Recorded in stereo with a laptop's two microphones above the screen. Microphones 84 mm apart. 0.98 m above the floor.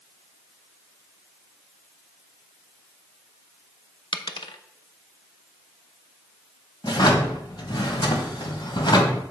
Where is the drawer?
65° left (ahead or behind), 1.6 m.